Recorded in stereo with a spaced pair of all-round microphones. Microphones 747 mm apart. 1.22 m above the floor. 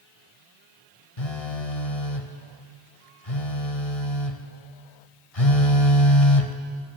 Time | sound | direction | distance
1.2 | a phone buzzing | 50° left (ahead or behind) | 1.4 m